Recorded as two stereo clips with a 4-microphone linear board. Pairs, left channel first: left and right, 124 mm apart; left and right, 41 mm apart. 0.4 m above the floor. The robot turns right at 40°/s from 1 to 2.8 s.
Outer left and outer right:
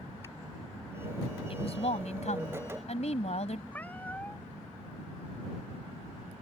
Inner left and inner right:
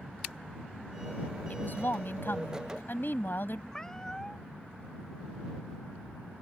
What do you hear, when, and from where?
1.5 s a woman speaking: 55° left; by 3.6 s 105° left
3.7 s a cat meowing: 15° left (ahead or behind)